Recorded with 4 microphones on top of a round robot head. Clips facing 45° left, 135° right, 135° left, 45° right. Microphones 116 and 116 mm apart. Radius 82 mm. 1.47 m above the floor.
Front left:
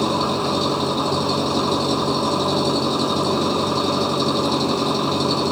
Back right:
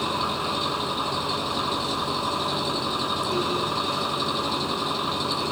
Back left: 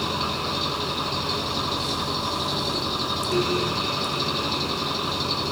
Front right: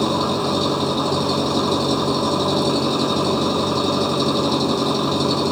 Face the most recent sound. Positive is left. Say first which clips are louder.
# front left 7 dB, front right 8 dB
turn(degrees=-5)